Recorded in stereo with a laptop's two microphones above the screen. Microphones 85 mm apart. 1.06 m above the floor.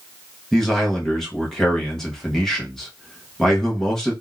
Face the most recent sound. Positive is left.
turn(degrees=5)  # may be behind; listen again after turning